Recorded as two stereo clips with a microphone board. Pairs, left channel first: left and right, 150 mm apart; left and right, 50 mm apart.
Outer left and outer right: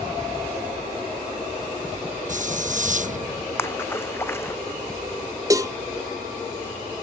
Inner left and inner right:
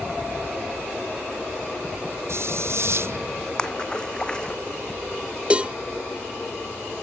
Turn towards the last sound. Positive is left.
turn(degrees=-25)  # may be behind; listen again after turning